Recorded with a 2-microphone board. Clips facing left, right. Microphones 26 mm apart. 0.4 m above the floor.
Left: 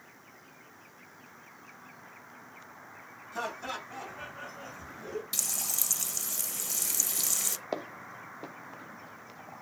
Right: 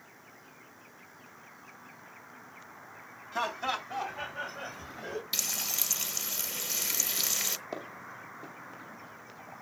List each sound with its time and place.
3.3 s laughter: 30° right (ahead or behind), 3.5 m; by 5.2 s 50° right (ahead or behind), 2.5 m
5.3 s frying: 25° right (ahead or behind), 0.7 m
7.7 s footsteps: 35° left (ahead or behind), 1.0 m